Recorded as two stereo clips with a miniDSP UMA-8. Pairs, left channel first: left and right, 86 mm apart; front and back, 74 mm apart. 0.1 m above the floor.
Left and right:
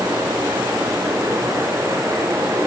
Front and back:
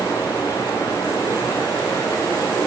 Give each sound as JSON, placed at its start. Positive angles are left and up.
{"t": 0.0, "sound": "running water", "azimuth_deg": -30, "distance_m": 9.0}